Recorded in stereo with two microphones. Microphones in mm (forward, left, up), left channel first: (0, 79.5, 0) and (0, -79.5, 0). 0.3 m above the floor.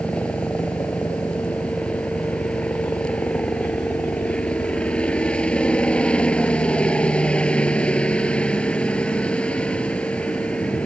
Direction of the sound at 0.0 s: 5° left (ahead or behind).